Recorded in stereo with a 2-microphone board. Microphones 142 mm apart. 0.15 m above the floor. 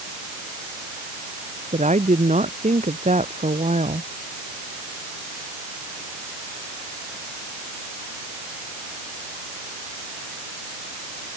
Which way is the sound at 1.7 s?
55° right (ahead or behind).